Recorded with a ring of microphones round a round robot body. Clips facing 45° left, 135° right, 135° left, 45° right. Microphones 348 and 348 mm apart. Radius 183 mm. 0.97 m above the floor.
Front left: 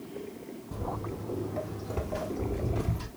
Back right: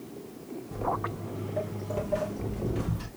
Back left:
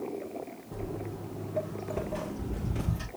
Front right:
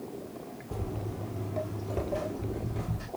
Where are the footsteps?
30° right, 1.1 m; by 3.1 s 135° left, 1.1 m.